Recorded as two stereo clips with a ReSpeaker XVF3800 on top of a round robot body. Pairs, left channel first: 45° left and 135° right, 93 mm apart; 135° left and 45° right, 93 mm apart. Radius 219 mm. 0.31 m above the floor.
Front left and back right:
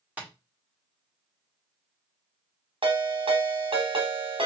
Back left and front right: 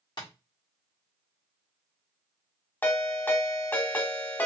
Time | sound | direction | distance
0.2 | tapping | 150° left | 2 m
2.8 | a ringtone | 160° right | 1.2 m